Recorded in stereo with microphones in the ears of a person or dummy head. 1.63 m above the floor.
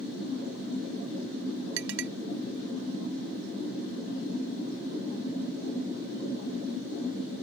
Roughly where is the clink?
Right.